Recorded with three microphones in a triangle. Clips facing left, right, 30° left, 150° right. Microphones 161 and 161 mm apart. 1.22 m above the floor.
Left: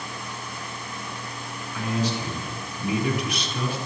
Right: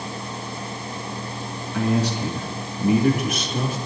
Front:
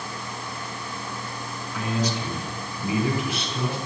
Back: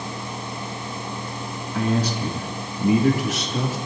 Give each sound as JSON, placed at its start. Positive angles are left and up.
{"t": 1.7, "sound": "a man speaking", "azimuth_deg": -110, "distance_m": 2.5}